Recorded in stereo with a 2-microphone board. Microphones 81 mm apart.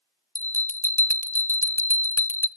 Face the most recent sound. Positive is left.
turn(degrees=25)  # may be behind; listen again after turning